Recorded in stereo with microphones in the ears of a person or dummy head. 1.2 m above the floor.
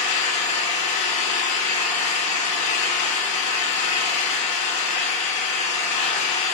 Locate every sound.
0.0 s an engine running: 35° left (ahead or behind), 1.2 m